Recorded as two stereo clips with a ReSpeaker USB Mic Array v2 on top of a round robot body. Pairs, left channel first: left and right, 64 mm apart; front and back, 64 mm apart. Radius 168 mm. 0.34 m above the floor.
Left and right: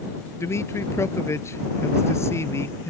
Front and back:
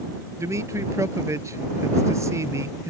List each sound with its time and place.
0.4 s a man speaking: 135° left